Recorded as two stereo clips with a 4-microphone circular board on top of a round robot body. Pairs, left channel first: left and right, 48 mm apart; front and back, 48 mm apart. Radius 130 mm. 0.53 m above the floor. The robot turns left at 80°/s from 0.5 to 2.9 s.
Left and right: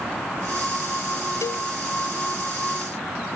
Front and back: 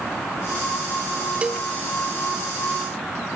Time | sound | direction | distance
1.4 | a cowbell | 115° left | ?